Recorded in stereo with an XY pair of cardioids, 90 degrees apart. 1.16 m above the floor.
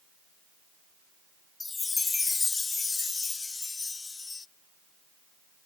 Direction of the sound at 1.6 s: 30° left.